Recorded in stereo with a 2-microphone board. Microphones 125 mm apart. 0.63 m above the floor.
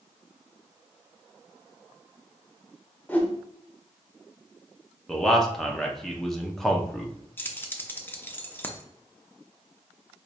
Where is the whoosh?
15° left (ahead or behind), 0.7 m.